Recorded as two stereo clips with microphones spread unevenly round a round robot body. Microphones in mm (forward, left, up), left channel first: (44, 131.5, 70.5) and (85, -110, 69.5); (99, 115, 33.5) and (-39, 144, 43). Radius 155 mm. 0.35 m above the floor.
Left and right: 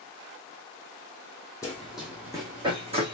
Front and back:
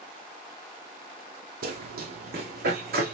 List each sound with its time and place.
1.6 s running footsteps: straight behind, 1.0 m; by 3.1 s 150° right, 2.0 m